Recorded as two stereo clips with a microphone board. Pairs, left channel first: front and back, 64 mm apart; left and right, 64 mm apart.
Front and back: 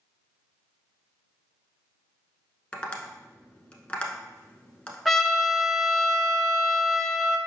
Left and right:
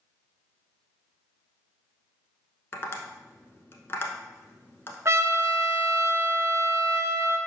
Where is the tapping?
65° left, 0.9 m.